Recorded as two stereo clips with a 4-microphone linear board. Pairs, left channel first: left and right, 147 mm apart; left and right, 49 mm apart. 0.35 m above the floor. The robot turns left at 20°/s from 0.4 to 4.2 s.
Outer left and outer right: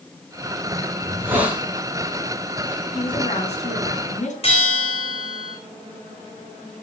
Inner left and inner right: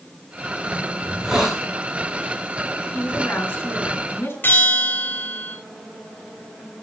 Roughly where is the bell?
Left.